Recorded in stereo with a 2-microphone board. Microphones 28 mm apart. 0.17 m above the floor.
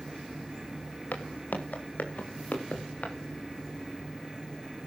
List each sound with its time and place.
1.1 s footsteps: 80° left, 4 m; by 3.1 s 60° left (ahead or behind), 5 m